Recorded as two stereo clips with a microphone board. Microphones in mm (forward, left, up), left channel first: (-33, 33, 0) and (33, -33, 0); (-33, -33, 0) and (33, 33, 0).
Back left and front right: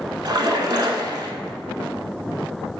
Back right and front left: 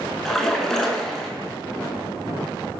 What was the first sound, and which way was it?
A splash, 50° right.